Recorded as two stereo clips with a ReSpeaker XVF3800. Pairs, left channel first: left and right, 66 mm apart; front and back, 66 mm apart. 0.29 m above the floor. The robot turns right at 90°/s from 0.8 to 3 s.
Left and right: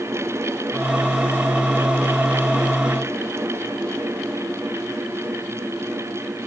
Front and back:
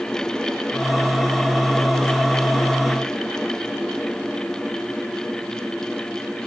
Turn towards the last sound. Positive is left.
No sound to turn to.